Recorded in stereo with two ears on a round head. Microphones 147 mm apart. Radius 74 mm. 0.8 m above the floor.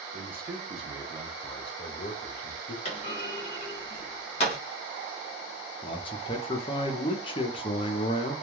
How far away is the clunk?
About 1.2 m.